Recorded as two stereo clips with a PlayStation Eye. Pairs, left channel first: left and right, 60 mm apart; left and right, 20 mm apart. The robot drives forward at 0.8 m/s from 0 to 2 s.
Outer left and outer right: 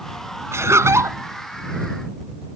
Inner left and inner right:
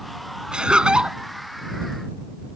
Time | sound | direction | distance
0.5 | laughter | 45° right (ahead or behind) | ?